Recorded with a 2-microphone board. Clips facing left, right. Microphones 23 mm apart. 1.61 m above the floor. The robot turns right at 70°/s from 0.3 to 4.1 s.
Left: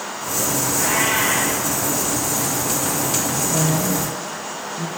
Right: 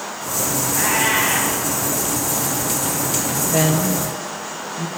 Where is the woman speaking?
55° right (ahead or behind), 0.9 m; by 4.9 s 15° right (ahead or behind), 0.9 m.